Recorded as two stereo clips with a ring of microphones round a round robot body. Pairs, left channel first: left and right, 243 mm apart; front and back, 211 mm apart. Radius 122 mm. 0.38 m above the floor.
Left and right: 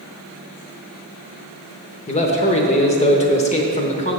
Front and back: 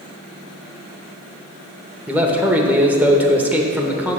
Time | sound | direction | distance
2.1 | a man speaking | 105° left | 0.8 m